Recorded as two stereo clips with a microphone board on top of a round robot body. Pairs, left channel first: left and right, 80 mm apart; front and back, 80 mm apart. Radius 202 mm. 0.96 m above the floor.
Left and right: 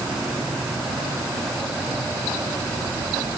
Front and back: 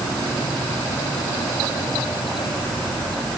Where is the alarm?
No alarm in this recording.